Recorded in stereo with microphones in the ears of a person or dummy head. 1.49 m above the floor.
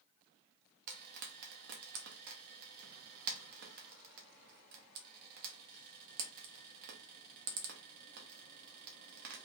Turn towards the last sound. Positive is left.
turn(degrees=-55)  # may be behind; listen again after turning